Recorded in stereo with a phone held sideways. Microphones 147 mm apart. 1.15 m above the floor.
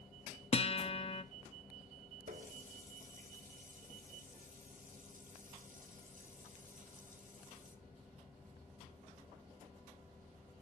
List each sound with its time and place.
0.5 s a guitar: 40° left (ahead or behind), 0.6 m
2.3 s a running tap: 65° right (ahead or behind), 1.4 m